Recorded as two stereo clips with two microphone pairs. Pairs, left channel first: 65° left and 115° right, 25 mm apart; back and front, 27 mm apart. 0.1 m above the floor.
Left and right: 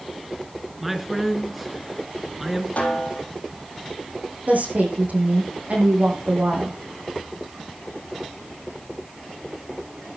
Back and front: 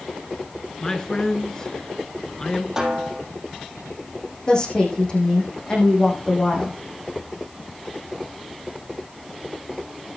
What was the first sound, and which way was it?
A man speaking, 170° left.